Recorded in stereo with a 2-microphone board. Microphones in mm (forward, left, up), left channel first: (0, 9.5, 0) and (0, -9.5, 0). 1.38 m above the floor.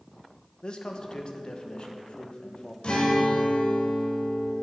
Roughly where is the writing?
I don't hear writing.